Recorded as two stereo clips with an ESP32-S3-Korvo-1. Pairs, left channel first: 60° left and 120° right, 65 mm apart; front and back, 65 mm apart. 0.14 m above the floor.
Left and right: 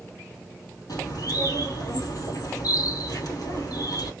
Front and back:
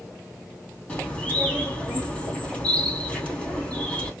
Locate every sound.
0.9 s a bird: 65° left, 2.5 m